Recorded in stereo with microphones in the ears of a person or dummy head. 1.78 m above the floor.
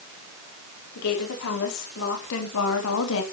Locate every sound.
0.9 s a woman speaking: 75° left (ahead or behind), 5 m; by 3.2 s 80° left, 3 m